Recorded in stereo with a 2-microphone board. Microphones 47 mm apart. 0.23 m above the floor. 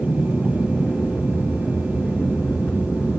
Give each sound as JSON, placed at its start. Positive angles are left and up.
{"t": 0.0, "sound": "an aircraft", "side_deg": 45}